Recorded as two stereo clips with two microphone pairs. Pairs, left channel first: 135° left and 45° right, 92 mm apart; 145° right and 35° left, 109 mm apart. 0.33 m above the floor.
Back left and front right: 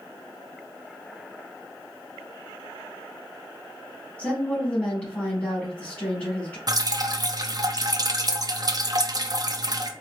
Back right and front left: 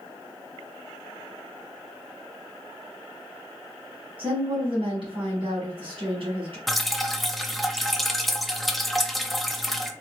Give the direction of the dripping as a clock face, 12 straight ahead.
2 o'clock.